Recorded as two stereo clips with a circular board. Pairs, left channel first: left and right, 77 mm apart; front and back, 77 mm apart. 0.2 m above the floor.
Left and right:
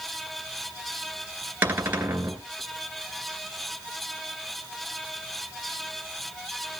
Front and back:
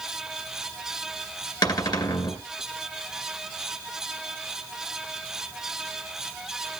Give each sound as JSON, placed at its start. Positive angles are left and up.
{"t": 1.6, "sound": "a cupboard door", "azimuth_deg": -25, "distance_m": 2.0}